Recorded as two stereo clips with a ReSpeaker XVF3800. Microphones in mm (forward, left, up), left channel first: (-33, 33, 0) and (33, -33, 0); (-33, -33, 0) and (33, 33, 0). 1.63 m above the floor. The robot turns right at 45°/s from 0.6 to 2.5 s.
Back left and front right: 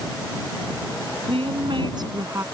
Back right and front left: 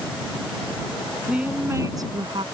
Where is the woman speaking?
40° right; by 2.4 s 15° left.